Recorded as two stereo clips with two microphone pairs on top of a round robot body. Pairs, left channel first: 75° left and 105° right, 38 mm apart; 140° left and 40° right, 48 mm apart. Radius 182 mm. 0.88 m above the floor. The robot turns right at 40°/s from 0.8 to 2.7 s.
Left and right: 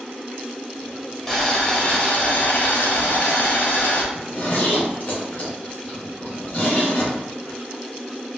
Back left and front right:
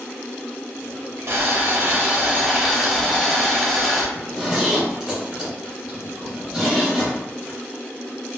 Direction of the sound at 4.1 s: 35° left.